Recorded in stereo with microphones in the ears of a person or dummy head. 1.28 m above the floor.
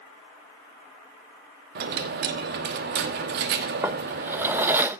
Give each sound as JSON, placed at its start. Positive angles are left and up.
{"t": 1.8, "sound": "a dropped coin", "side_deg": -50, "distance_m": 0.9}
{"t": 3.8, "sound": "a drawer", "side_deg": -10, "distance_m": 0.6}